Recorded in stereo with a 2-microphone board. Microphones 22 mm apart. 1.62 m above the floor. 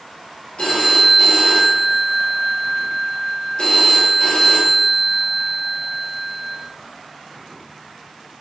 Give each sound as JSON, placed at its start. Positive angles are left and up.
{"t": 0.6, "sound": "a phone ringing", "side_deg": 50, "distance_m": 1.0}